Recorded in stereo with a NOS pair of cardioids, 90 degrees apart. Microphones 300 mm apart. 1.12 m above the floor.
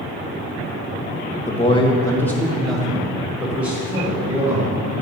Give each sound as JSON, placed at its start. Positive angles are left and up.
{"t": 1.5, "sound": "a man speaking", "azimuth_deg": 25, "distance_m": 1.1}